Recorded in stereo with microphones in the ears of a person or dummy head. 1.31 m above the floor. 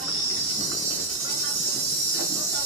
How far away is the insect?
About 1.9 m.